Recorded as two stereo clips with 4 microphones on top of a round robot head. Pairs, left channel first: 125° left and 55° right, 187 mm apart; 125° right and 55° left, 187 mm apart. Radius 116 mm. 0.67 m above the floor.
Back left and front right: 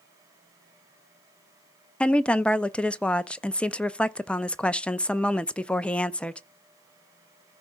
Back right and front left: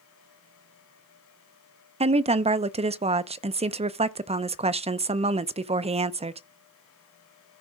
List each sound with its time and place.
2.0 s a woman speaking: 45° left, 0.6 m